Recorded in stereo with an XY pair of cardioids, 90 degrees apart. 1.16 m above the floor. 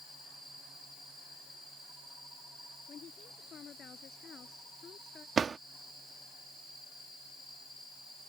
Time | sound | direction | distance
2.9 | a woman speaking | 60° left | ?
5.4 | a drawer | 45° right | ?